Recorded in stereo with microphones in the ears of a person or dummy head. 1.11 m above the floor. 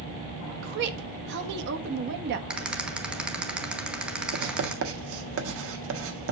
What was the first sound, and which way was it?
A woman speaking, 65° right (ahead or behind).